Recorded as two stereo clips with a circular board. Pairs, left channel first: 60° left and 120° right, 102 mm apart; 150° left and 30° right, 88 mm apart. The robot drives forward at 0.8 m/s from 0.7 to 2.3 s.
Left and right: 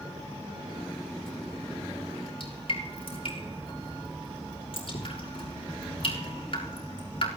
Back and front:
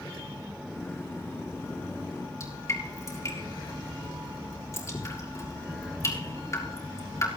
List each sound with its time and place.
2.4 s dripping: 90° left, 5.5 m